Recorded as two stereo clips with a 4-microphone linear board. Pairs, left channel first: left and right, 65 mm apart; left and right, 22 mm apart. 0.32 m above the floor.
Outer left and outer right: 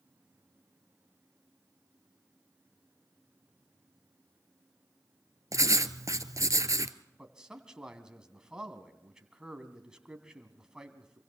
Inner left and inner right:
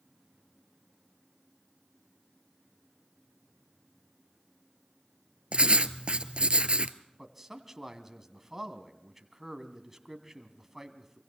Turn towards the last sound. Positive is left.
turn(degrees=-10)  # may be behind; listen again after turning